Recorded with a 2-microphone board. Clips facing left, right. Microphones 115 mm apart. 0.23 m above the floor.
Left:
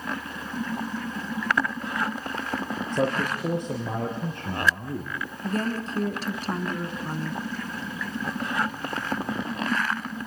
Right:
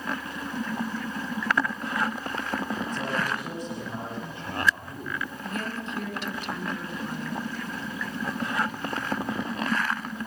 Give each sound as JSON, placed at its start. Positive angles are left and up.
{"t": 2.9, "sound": "a man speaking", "side_deg": 65, "distance_m": 5.5}
{"t": 5.4, "sound": "a woman speaking", "side_deg": 40, "distance_m": 3.0}